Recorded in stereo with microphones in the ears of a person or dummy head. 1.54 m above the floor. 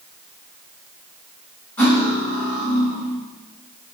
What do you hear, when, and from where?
1.8 s cutlery clinking: 10° left (ahead or behind), 2 m